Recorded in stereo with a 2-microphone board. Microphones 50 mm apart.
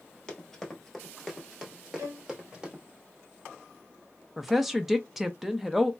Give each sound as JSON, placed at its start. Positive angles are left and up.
{"t": 0.3, "sound": "running footsteps", "side_deg": 15, "distance_m": 1.2}
{"t": 2.0, "sound": "a violin", "side_deg": -85, "distance_m": 1.0}
{"t": 4.4, "sound": "a woman speaking", "side_deg": -5, "distance_m": 0.6}